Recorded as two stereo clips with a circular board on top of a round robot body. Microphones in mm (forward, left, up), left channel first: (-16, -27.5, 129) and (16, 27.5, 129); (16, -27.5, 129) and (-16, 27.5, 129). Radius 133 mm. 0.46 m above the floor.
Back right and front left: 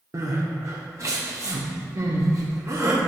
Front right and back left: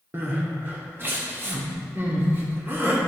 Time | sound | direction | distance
0.1 | crying | 70° left | 1.6 m